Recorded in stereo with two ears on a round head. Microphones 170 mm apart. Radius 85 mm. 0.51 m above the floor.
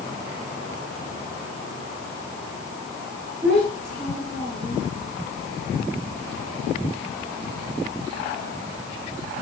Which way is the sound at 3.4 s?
5° left (ahead or behind).